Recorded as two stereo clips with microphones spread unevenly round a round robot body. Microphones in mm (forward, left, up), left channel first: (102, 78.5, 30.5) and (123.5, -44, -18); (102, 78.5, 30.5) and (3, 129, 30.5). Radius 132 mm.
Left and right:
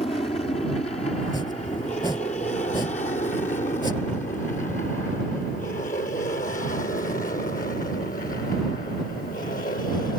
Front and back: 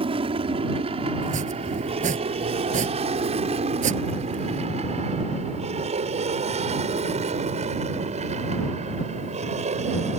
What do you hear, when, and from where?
0.0 s an aircraft: 165° left; by 10.2 s 155° left
1.2 s chopping: 170° left